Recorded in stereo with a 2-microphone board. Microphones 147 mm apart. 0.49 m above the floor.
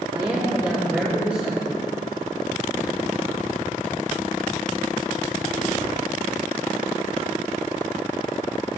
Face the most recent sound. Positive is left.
turn(degrees=-5)  # may be behind; listen again after turning